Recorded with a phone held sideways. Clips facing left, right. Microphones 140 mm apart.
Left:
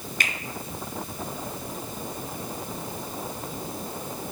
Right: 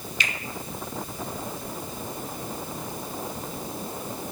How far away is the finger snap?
About 1.1 m.